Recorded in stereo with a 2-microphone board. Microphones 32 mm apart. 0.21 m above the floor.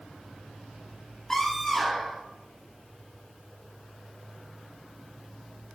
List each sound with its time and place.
1.3 s a scream: 15° left (ahead or behind), 4.5 m